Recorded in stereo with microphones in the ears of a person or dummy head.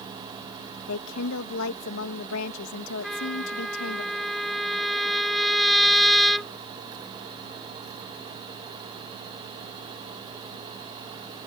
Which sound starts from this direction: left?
A woman speaking, at 0.9 s.